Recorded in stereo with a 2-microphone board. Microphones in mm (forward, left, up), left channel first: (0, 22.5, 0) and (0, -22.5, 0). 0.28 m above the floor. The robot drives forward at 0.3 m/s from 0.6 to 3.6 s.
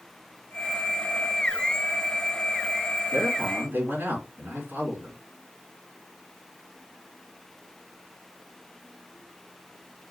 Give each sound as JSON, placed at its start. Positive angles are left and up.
{"t": 3.1, "sound": "a man speaking", "side_deg": -45, "distance_m": 3.5}